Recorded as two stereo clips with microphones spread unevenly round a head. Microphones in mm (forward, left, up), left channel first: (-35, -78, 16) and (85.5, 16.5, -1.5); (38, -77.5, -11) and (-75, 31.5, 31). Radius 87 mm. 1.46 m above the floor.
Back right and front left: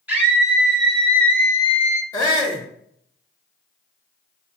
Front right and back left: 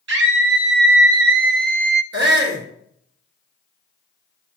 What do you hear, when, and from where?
0.1 s a scream: 120° left, 2 m; by 2.0 s 175° left, 0.7 m
2.1 s a shout: 145° left, 2 m